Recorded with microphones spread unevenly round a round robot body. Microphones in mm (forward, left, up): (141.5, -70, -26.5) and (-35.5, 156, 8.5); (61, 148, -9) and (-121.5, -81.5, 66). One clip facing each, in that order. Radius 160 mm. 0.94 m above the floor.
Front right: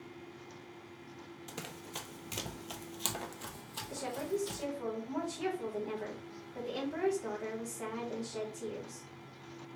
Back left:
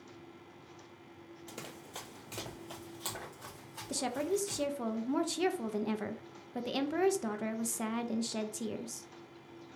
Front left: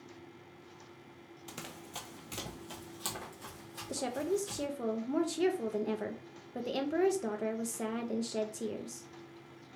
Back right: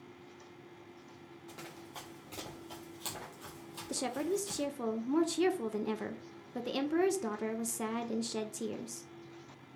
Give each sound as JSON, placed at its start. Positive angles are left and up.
{"t": 1.5, "sound": "running footsteps", "azimuth_deg": 30, "distance_m": 1.1}
{"t": 3.9, "sound": "a woman speaking", "azimuth_deg": 145, "distance_m": 0.5}